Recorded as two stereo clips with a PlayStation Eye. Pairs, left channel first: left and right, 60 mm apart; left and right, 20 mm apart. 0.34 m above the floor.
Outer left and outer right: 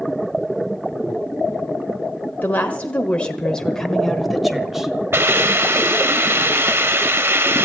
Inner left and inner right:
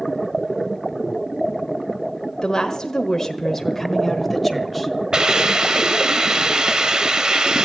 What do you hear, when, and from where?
2.4 s a woman speaking: 30° left (ahead or behind), 1.2 m; by 5.0 s 5° right (ahead or behind), 1.6 m
5.1 s a hiss: 45° right (ahead or behind), 1.0 m